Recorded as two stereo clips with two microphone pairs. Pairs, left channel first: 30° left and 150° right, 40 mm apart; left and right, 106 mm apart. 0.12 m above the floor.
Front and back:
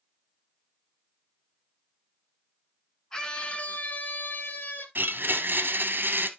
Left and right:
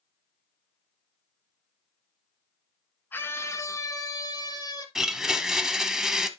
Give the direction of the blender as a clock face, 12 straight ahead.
6 o'clock.